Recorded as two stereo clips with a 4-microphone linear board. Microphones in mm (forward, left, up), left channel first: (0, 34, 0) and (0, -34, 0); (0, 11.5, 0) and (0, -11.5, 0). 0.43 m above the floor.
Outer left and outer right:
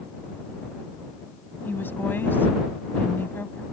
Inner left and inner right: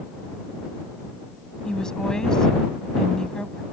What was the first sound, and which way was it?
A woman speaking, 35° left (ahead or behind).